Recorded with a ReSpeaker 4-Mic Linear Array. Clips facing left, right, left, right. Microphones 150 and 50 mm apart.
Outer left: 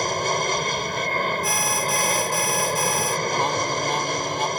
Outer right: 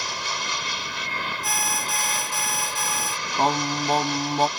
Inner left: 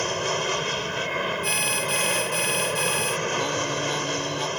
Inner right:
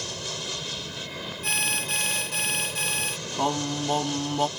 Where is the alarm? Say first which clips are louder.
Outer left 4 dB, inner left 3 dB; centre (ahead or behind).